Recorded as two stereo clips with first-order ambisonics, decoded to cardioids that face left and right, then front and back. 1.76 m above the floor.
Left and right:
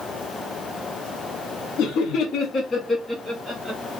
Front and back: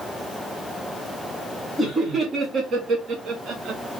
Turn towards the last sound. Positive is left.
turn(degrees=-150)